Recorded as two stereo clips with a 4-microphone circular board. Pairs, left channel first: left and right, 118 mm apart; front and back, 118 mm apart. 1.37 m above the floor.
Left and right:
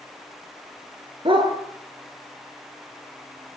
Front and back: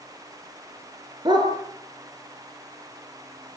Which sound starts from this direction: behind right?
A dog barking, at 1.2 s.